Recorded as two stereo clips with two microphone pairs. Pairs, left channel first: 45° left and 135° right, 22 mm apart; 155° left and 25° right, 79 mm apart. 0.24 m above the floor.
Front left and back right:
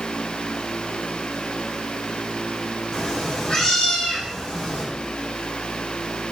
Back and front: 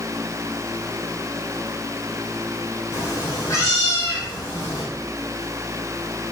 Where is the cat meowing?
105° left, 4.5 m.